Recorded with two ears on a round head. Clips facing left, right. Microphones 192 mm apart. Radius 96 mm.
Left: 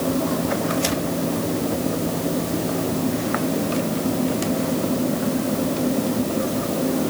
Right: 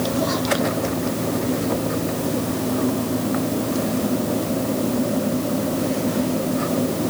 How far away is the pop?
No pop in this recording.